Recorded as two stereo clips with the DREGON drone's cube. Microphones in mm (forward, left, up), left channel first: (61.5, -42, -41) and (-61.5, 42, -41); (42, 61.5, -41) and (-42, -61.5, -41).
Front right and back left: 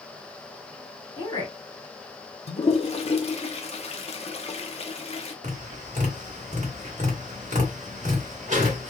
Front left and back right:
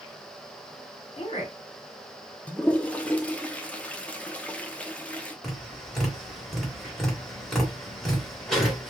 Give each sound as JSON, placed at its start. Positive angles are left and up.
{"t": 1.2, "sound": "a woman speaking", "azimuth_deg": 20, "distance_m": 1.9}
{"t": 2.5, "sound": "a toilet flushing", "azimuth_deg": -20, "distance_m": 0.5}
{"t": 5.4, "sound": "tapping", "azimuth_deg": 140, "distance_m": 1.5}